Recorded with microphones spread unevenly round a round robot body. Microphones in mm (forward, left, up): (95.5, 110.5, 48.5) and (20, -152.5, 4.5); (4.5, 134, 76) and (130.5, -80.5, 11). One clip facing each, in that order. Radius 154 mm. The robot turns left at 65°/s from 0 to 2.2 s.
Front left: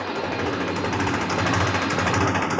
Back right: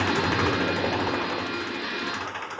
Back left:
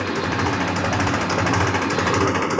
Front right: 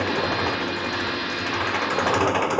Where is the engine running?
160° right; by 2.6 s 60° left.